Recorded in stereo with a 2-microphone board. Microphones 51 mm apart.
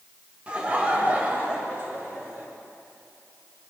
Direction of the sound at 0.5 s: 20° right (ahead or behind).